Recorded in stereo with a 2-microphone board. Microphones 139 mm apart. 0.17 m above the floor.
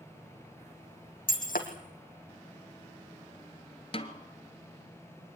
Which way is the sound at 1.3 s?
85° left.